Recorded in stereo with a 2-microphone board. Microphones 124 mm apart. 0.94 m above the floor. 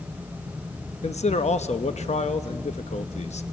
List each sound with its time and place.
1.0 s a man speaking: 65° left (ahead or behind), 0.8 m